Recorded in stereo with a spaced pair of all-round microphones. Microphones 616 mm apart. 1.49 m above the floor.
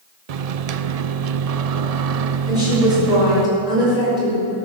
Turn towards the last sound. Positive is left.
turn(degrees=75)  # may be behind; listen again after turning